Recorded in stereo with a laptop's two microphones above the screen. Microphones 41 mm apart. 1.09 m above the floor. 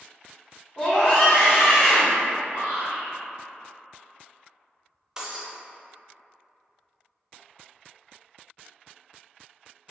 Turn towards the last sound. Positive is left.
turn(degrees=-15)  # may be behind; listen again after turning